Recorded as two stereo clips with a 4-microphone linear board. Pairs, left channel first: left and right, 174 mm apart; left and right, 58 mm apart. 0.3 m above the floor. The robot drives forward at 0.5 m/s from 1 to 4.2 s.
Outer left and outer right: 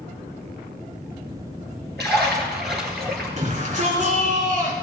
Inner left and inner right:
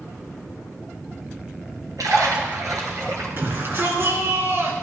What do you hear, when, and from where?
2.0 s a splash: 75° right (ahead or behind), 3.5 m; by 3.3 s 70° right (ahead or behind), 3.5 m
3.4 s a shout: 45° right (ahead or behind), 4 m